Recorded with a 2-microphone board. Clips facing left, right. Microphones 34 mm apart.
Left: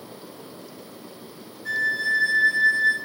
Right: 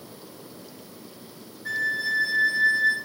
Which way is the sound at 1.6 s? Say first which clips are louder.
Left 3 dB; 5° right (ahead or behind).